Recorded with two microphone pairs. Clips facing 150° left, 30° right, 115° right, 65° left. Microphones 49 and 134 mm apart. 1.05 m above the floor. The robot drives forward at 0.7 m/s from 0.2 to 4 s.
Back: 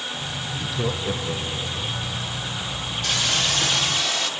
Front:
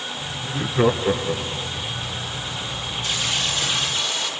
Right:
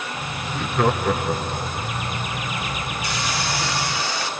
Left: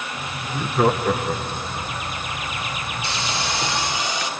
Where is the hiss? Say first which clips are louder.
Back 2 dB, even; 130° left, 2.5 m; by 4.3 s 140° left, 3 m.